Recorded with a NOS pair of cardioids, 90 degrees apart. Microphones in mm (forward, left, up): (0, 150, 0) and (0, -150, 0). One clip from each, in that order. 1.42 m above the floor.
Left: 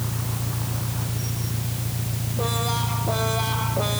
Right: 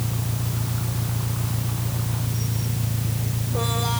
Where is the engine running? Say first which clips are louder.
Even; 15° right.